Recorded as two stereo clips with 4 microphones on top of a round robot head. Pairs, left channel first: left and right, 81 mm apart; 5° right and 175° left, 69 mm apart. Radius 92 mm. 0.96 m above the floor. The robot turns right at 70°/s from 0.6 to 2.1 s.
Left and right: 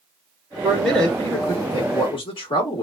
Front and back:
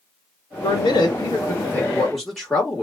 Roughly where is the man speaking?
Ahead.